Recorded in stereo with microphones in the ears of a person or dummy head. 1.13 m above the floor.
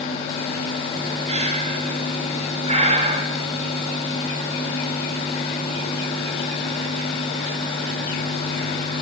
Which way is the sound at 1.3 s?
30° right (ahead or behind).